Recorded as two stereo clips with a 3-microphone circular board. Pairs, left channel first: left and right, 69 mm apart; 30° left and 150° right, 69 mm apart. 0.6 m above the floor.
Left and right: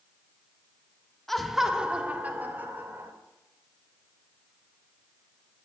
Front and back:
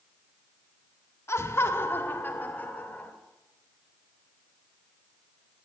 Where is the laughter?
5° left, 1.3 m; by 3.1 s 40° right, 2.5 m.